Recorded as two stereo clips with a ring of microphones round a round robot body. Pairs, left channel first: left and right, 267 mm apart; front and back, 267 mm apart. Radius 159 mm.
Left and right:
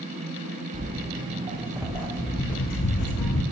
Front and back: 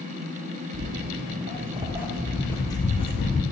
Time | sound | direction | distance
0.7 | footsteps | 135° right | 0.9 m